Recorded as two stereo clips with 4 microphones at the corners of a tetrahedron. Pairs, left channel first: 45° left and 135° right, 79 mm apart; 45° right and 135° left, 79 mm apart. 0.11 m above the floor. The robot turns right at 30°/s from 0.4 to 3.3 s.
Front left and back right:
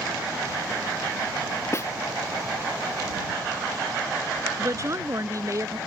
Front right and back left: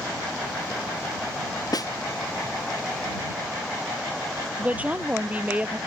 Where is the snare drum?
10° right; by 1.9 s 5° right.